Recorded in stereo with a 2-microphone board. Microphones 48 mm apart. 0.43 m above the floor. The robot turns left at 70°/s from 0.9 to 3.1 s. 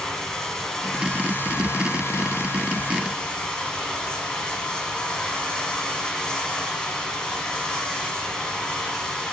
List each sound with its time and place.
0.0 s running water: 170° left, 1.6 m; by 9.3 s 15° left, 1.6 m